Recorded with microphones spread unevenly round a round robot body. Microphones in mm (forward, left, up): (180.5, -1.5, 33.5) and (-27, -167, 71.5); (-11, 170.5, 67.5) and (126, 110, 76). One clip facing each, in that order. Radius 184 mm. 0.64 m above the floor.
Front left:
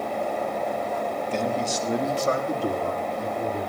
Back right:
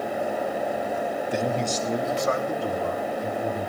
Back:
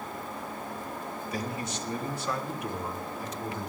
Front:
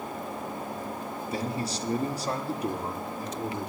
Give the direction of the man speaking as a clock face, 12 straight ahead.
2 o'clock.